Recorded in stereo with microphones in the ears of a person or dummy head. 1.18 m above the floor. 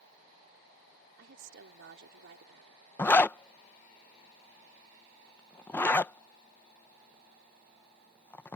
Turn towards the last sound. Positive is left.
turn(degrees=5)  # may be behind; listen again after turning